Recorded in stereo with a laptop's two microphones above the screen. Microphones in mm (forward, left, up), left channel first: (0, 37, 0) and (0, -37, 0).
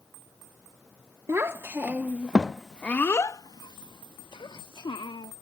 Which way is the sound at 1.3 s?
35° right (ahead or behind).